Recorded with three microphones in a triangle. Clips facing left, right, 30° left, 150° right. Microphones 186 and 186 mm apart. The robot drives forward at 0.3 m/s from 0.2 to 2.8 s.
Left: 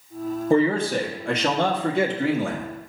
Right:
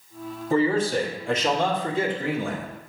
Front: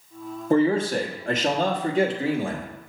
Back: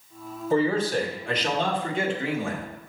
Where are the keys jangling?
I don't hear keys jangling.